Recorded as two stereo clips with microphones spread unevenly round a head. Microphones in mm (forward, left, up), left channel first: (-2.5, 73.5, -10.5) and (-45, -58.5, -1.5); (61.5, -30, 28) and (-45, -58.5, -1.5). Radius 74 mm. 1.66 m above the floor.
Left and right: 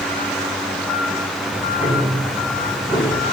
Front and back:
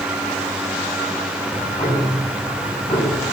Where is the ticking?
35° right, 8.5 m.